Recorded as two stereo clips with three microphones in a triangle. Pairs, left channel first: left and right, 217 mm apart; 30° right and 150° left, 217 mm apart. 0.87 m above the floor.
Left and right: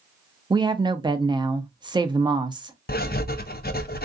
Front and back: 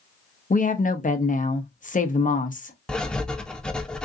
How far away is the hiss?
No hiss in this recording.